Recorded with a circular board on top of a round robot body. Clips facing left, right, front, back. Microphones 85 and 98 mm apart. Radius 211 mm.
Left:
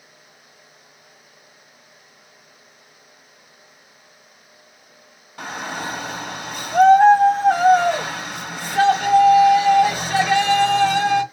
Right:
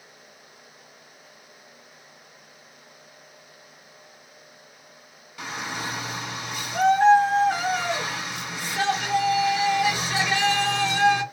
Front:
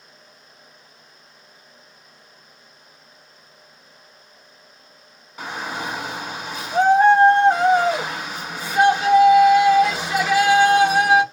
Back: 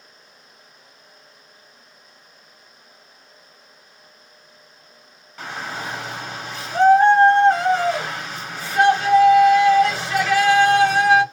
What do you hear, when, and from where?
5.4 s a shout: 80° left, 1.1 m